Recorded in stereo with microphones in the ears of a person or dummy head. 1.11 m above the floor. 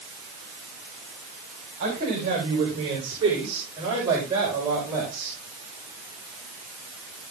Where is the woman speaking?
40° right (ahead or behind), 5 m; by 5.4 s 15° right (ahead or behind), 6 m.